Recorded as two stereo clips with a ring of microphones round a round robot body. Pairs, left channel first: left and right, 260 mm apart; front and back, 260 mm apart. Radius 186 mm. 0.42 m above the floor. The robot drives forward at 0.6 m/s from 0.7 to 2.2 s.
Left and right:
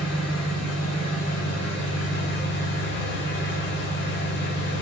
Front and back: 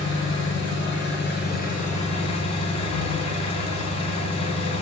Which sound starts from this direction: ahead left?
An engine running, at 0.0 s.